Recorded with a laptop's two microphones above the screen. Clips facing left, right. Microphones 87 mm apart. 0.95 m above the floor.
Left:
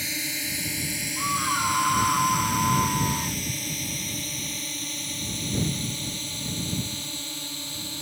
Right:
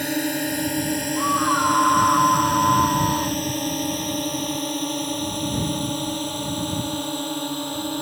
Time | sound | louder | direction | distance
0.0 | a drone | right 11 dB | 50° right (ahead or behind) | ?
1.2 | a scream | right 6 dB | 25° right (ahead or behind) | ?